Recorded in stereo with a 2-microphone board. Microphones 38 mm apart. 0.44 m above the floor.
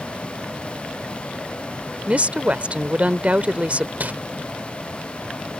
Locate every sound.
2.1 s a woman speaking: 35° right (ahead or behind)
4.0 s crumpling: 50° right (ahead or behind)